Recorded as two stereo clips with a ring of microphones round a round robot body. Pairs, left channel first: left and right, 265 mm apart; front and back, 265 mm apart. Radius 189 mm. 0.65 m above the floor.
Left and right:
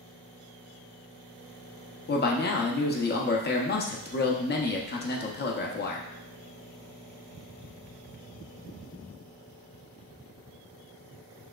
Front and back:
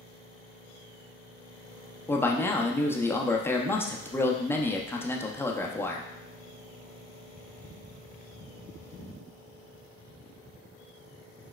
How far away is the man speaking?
About 0.7 m.